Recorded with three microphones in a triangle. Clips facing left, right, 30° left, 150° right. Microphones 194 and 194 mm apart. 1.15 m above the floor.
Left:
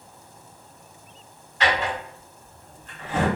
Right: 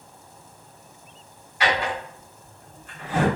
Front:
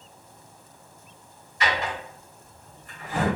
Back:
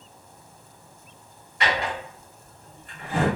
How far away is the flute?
No flute in this recording.